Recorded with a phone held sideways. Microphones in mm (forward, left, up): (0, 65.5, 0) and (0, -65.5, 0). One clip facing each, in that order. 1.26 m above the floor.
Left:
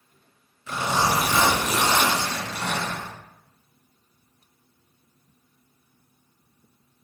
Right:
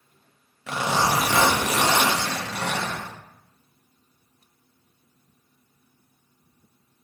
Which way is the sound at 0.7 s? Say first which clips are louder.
Right 1 dB; 75° right (ahead or behind).